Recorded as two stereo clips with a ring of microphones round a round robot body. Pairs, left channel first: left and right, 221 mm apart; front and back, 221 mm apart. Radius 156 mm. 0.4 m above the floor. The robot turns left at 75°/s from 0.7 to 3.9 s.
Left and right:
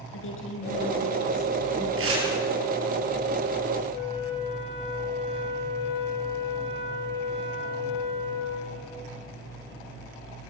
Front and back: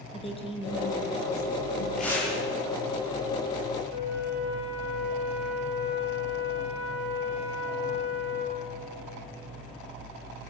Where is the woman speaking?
65° left, 6.5 m; by 1.9 s 25° right, 6.5 m.